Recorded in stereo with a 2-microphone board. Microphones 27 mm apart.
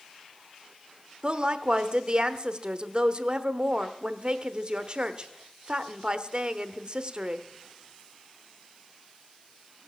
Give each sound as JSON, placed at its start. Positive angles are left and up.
{"t": 1.2, "sound": "a woman speaking", "side_deg": -35, "distance_m": 0.8}